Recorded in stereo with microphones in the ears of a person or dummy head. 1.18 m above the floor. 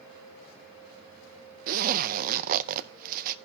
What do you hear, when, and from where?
1.7 s a zipper: 50° right (ahead or behind), 0.6 m